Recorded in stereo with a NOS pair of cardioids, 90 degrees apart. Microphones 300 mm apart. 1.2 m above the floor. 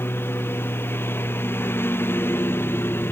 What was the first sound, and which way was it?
A lawn mower, 5° left.